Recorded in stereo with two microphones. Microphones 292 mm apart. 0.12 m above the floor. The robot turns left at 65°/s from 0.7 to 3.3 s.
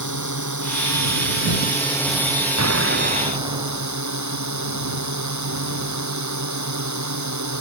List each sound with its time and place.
0.0 s a drone: 95° left; by 7.6 s 75° right
2.6 s an explosion: 120° right; by 4.0 s 165° right